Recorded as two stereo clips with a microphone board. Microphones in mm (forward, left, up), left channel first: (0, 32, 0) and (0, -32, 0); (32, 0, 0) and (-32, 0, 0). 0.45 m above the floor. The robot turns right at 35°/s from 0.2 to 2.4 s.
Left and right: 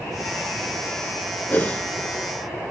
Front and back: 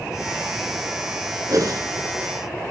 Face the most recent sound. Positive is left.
turn(degrees=180)